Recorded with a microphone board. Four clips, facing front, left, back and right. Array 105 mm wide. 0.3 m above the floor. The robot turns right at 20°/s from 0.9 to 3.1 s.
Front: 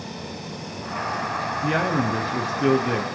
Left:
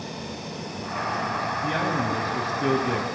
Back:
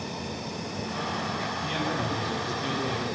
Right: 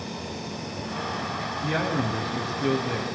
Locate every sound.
1.6 s a man speaking: 10° right, 4 m; by 3.1 s 20° left, 4 m